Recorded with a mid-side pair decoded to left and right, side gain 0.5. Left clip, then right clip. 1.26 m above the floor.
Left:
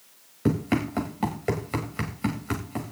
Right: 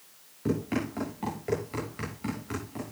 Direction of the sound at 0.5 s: 55° left.